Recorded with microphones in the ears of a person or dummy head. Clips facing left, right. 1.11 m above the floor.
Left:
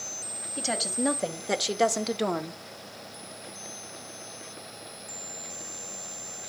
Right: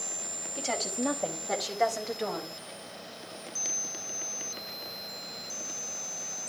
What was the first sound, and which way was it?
A woman speaking, 15° left (ahead or behind).